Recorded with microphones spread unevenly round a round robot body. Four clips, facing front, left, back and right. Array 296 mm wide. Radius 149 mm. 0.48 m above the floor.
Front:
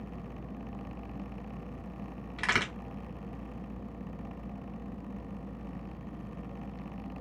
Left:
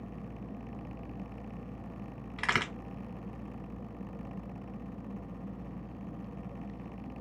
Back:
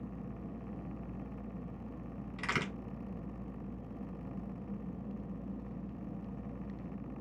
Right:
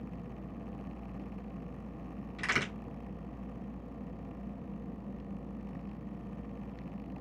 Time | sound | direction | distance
2.4 | a crack | 50° left | 2 m